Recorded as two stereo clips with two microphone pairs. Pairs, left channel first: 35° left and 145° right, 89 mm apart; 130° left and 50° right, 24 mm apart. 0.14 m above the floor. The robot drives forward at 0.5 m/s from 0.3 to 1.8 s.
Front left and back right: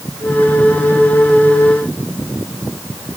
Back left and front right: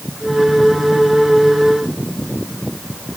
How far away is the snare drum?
I don't hear a snare drum.